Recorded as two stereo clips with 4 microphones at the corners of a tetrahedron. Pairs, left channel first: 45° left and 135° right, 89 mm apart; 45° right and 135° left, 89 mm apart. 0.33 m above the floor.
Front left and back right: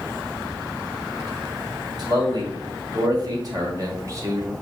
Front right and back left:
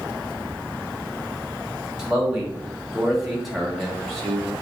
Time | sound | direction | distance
2.0 | a man speaking | 145° right | 2.5 m